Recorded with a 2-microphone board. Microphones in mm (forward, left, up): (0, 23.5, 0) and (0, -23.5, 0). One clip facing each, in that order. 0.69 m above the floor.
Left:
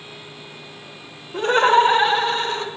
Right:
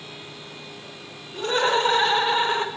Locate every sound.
1.3 s laughter: 40° left (ahead or behind), 1.0 m; by 2.7 s 30° right (ahead or behind), 0.9 m